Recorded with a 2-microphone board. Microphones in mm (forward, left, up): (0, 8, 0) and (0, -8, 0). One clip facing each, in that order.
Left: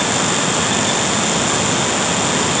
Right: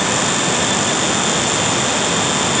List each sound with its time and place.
Only background noise.